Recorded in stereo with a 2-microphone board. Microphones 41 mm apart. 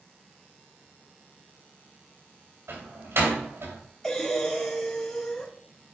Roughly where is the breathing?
Centre.